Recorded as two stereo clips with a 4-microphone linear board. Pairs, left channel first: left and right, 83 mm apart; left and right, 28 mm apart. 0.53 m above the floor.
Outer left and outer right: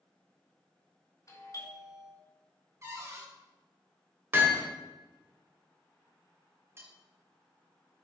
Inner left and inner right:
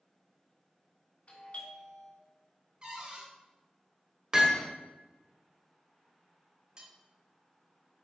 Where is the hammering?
30° right (ahead or behind), 1.6 m.